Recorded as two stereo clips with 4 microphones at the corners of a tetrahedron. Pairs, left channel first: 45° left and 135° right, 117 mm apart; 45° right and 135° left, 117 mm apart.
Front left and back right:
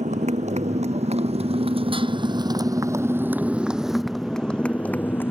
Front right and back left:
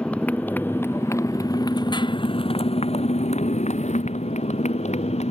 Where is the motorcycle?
125° right; by 5.3 s 25° right.